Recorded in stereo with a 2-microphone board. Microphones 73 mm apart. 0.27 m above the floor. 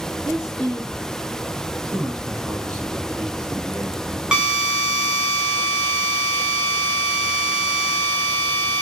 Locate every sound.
0.2 s a woman speaking: 10° right (ahead or behind), 5 m
1.8 s a man speaking: 5° left (ahead or behind), 3 m
4.3 s a drill: 10° right (ahead or behind), 3.5 m